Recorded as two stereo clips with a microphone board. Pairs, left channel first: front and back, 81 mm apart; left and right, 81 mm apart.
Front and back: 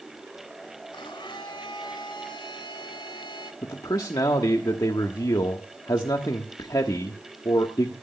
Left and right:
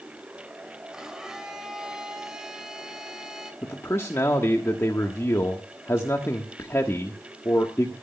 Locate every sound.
0.9 s a blender: 10° right, 2.5 m
3.6 s a man speaking: 35° left, 1.3 m